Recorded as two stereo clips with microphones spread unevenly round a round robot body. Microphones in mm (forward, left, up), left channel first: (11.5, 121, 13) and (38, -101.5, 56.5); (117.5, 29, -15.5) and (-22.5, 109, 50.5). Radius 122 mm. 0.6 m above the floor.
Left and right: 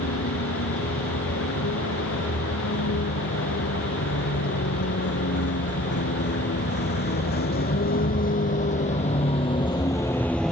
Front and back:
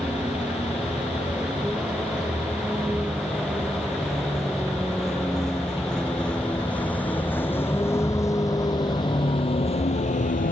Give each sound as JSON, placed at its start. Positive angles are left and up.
{"t": 0.0, "sound": "a vehicle", "azimuth_deg": 65}